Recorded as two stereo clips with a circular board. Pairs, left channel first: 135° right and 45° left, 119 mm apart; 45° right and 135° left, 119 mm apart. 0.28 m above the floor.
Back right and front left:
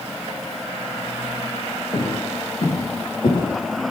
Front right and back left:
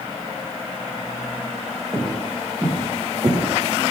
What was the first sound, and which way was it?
Footsteps, 170° right.